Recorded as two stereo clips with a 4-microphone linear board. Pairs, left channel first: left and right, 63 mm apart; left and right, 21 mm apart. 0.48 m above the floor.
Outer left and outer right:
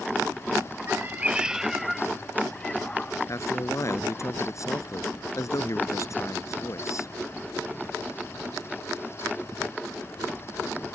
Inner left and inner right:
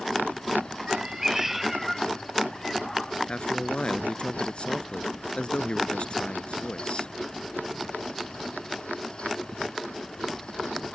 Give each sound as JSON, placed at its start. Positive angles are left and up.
{"t": 0.9, "sound": "a cat meowing", "side_deg": -40}
{"t": 3.3, "sound": "a man speaking", "side_deg": 55}